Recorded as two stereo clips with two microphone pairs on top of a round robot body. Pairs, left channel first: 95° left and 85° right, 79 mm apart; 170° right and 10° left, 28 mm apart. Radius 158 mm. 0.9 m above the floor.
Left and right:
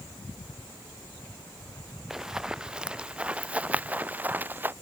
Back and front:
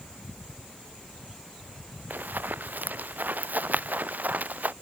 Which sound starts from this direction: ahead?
Running footsteps, at 2.1 s.